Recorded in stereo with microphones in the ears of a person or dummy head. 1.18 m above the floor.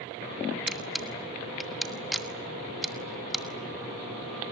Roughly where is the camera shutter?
Centre.